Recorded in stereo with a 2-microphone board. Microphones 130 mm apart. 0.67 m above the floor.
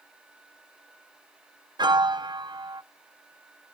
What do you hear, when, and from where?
1.8 s a piano: 35° right (ahead or behind), 0.7 m